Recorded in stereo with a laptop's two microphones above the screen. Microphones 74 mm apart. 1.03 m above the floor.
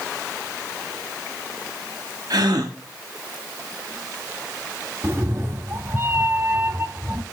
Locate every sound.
2.3 s a gasp: 65° right (ahead or behind), 1.5 m
5.0 s a cat meowing: 35° right (ahead or behind), 0.7 m